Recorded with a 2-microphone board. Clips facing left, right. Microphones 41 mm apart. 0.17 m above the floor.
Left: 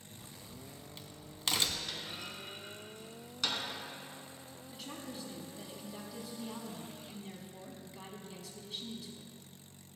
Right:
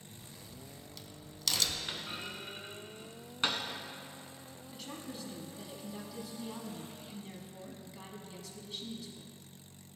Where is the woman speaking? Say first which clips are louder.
Even; centre (ahead or behind), 1.0 m.